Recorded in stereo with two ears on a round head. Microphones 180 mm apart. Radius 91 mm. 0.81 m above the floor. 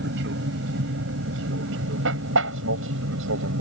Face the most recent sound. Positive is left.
turn(degrees=-65)  # may be behind; listen again after turning